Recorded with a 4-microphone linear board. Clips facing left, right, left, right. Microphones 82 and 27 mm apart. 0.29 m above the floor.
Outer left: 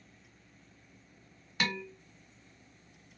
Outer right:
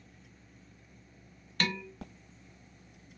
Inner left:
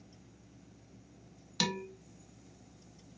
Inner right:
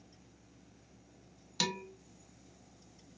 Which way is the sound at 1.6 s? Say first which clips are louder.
Even, inner left 1 dB; 10° left (ahead or behind).